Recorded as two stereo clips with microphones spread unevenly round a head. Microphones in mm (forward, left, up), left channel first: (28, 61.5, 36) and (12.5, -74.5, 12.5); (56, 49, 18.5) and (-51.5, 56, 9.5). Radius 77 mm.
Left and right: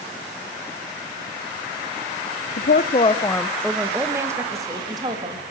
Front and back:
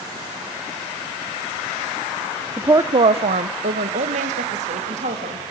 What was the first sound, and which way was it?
A woman speaking, 105° left.